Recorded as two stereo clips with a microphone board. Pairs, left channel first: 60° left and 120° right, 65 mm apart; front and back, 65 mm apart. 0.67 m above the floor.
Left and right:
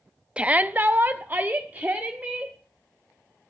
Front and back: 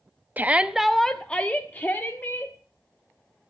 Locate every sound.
0.4 s a shout: 175° right, 0.7 m; by 2.5 s 55° right, 2 m